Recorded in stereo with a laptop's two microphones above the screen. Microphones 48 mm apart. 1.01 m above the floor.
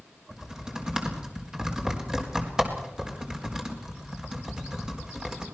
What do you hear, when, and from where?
0.3 s typing on a keyboard: 15° right (ahead or behind), 4 m